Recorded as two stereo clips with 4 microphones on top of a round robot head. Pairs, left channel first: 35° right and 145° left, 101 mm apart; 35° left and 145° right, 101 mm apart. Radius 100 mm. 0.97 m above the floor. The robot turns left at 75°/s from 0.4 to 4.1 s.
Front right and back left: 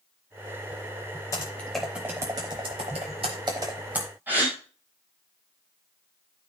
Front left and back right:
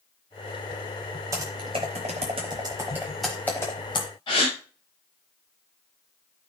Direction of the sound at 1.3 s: 90° right.